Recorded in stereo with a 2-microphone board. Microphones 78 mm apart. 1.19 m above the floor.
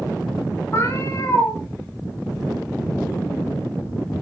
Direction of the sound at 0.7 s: 35° left (ahead or behind).